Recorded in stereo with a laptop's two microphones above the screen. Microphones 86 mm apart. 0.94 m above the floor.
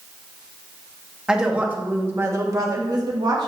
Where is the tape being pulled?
No tape being pulled in this recording.